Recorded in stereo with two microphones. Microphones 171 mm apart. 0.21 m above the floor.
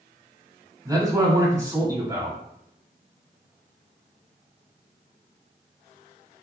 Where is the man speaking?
20° right (ahead or behind), 1.0 m.